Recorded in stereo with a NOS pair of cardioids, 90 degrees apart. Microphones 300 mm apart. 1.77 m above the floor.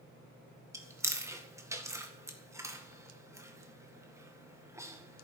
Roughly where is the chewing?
Ahead.